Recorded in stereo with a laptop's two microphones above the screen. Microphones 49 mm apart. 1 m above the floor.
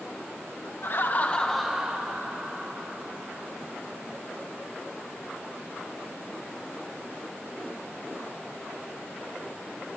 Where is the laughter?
45° left (ahead or behind), 0.7 m; by 3.8 s 45° right (ahead or behind), 2 m.